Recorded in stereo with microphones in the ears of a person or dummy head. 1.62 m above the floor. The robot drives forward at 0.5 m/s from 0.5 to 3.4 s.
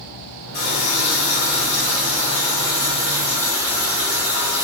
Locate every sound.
0.5 s a running tap: 50° left (ahead or behind), 1.0 m; by 4.6 s 25° left (ahead or behind), 1.8 m